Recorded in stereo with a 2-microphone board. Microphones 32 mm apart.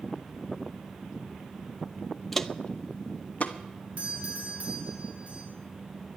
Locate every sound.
2.3 s footsteps: 5° left (ahead or behind), 0.5 m; by 3.6 s 50° left (ahead or behind), 1.1 m
4.0 s a doorbell: 40° right (ahead or behind), 4.5 m